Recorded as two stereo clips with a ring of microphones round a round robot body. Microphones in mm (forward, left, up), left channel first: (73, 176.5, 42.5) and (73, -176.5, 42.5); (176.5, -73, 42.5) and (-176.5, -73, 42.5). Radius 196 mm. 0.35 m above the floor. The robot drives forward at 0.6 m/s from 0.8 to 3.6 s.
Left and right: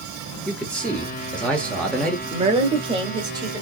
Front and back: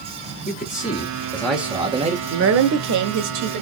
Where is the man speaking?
10° left, 1.2 m; by 2.2 s 170° left, 1.2 m.